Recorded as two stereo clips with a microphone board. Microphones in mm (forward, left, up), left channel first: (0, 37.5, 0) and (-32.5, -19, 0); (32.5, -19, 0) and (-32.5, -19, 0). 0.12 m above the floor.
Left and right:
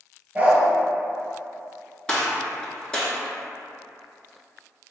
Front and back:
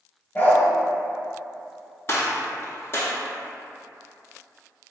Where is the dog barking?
55° right, 0.6 m.